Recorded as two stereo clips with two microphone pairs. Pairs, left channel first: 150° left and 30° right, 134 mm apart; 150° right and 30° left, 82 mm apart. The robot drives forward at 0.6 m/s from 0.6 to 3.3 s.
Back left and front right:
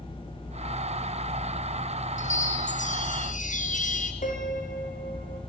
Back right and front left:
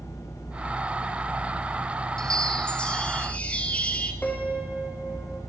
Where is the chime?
130° left, 3.5 m; by 4.1 s 135° left, 4 m.